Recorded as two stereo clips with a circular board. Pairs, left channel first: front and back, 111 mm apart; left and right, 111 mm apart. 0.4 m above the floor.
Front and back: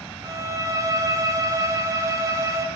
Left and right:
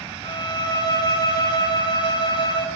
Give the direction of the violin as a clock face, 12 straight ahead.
8 o'clock.